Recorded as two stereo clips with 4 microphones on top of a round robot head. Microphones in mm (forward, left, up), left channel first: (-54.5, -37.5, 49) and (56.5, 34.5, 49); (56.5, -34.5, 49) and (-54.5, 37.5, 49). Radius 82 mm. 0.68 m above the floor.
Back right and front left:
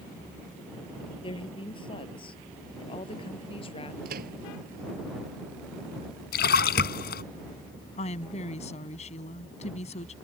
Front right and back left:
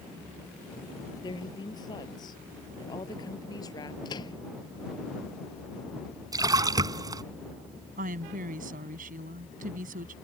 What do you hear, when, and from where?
1.2 s a woman speaking: 95° right
4.0 s a microwave: 25° left
6.3 s a splash: 150° right
8.0 s a woman speaking: 170° left